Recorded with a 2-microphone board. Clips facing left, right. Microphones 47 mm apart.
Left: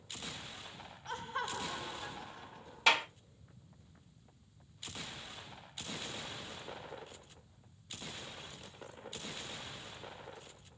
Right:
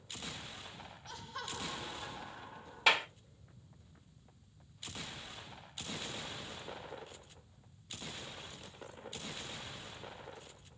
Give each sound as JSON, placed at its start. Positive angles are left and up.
{"t": 1.1, "sound": "laughter", "side_deg": 40, "distance_m": 1.1}
{"t": 2.9, "sound": "a clap", "side_deg": -5, "distance_m": 1.9}